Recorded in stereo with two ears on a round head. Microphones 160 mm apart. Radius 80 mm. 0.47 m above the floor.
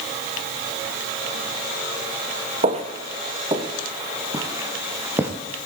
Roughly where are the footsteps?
Right.